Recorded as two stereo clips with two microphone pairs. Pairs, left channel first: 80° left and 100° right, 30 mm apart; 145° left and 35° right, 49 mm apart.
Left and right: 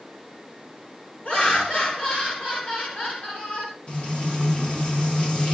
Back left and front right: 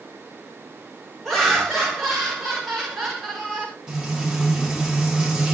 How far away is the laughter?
About 1.3 m.